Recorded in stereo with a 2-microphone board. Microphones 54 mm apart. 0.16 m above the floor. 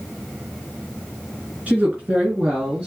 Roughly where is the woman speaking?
Right.